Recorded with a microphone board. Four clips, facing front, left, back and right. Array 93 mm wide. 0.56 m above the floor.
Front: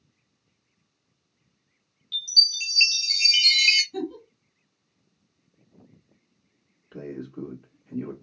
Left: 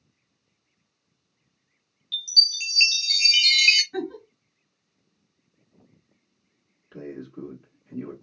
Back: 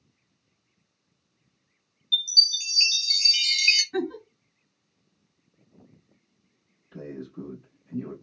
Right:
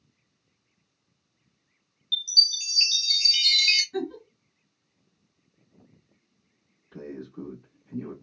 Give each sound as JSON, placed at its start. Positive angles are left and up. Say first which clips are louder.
{"t": 2.1, "sound": "a chime", "louder": "left 1 dB, back 2 dB", "azimuth_deg": 70, "distance_m": 0.9}
{"t": 3.9, "sound": "a giggle", "louder": "even, back 3 dB", "azimuth_deg": 155, "distance_m": 1.0}
{"t": 6.9, "sound": "a man speaking", "louder": "left 1 dB, front 2 dB", "azimuth_deg": 40, "distance_m": 1.6}